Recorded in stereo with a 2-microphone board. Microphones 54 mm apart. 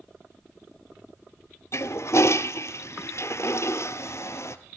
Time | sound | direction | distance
1.7 | a toilet flushing | 60° left (ahead or behind) | 1.2 m